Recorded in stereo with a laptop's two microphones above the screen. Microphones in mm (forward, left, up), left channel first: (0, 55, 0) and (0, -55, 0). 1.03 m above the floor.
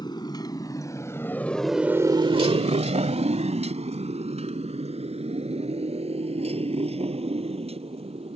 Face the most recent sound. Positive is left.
turn(degrees=-60)  # may be behind; listen again after turning